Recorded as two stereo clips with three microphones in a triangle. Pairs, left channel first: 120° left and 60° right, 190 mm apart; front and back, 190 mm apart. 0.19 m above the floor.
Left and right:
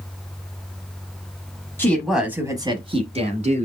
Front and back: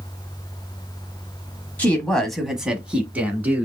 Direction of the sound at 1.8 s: 65° left.